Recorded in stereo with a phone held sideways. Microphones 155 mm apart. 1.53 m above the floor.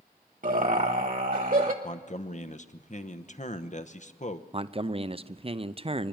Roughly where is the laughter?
Right.